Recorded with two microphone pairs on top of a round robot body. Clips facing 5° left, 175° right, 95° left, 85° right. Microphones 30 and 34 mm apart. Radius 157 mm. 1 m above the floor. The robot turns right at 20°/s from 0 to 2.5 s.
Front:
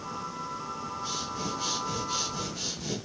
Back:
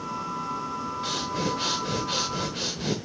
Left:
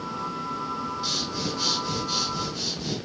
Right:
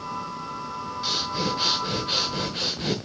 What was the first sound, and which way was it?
Breathing, 160° right.